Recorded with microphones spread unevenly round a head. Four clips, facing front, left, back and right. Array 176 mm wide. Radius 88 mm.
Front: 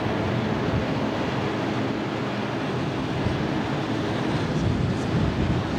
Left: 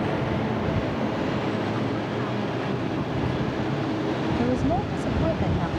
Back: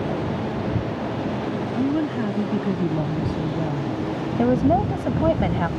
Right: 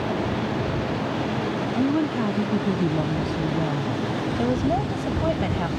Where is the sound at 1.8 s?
140° right.